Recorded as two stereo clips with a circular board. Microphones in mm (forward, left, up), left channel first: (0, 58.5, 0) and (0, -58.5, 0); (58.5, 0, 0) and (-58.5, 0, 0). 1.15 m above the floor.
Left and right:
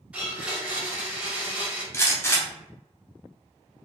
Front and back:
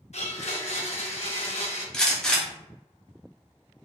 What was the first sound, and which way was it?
A blender, 10° right.